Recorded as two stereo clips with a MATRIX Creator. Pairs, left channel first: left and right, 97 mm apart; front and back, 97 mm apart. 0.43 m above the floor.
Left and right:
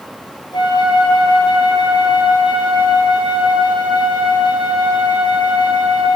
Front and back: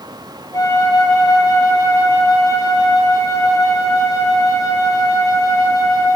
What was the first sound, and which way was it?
A flute, 55° left.